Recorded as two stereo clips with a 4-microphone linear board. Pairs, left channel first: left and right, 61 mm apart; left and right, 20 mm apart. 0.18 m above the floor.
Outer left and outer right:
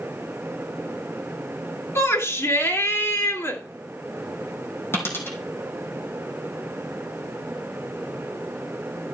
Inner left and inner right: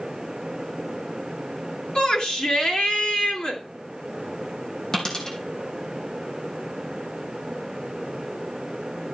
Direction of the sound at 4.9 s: 35° left (ahead or behind).